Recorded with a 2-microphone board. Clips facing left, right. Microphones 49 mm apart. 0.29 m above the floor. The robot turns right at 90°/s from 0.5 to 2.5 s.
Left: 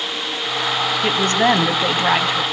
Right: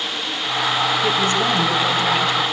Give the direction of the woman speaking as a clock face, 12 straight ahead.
10 o'clock.